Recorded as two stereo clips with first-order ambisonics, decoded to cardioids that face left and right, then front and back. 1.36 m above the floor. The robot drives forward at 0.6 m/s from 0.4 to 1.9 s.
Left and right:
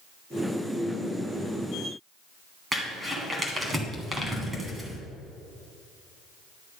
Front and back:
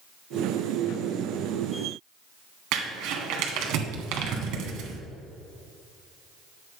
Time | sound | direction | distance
2.7 | crumpling | 165° right | 2 m